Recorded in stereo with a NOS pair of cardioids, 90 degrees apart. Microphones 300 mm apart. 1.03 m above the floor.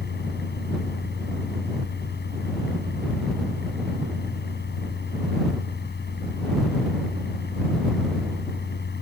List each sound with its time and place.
0.0 s a fan: 35° left